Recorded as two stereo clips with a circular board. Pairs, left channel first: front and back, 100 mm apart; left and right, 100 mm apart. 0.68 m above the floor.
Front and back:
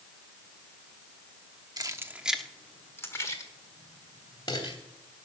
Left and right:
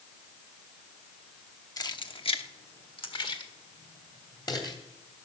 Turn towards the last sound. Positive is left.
turn(degrees=45)